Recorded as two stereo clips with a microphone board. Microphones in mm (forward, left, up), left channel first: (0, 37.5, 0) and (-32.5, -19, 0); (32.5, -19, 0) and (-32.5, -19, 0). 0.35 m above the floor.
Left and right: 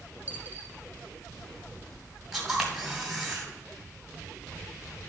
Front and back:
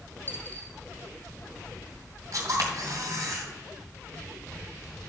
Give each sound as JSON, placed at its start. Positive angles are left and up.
{"t": 0.3, "sound": "a dropped coin", "azimuth_deg": -60, "distance_m": 1.8}
{"t": 2.3, "sound": "a camera shutter", "azimuth_deg": 160, "distance_m": 2.5}